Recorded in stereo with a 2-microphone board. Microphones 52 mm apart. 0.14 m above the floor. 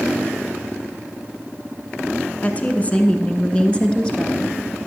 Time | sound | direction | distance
2.4 | a woman speaking | 30° left (ahead or behind) | 1.2 m